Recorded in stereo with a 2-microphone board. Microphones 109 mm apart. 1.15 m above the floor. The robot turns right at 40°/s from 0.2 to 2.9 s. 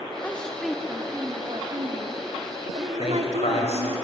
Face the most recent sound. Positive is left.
turn(degrees=70)  # may be behind; listen again after turning